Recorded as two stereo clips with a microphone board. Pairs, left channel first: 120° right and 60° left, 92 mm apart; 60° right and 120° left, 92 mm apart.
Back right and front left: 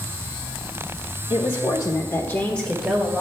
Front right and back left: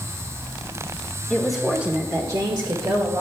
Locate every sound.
1.3 s a woman speaking: 140° right, 1.9 m; by 3.2 s 145° left, 2.5 m